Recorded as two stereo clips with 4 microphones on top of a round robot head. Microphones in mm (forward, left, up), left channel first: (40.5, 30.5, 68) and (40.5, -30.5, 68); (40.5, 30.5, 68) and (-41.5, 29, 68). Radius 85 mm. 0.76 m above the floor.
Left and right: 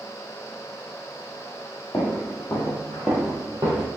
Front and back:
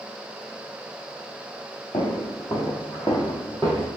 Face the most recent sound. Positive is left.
turn(degrees=-95)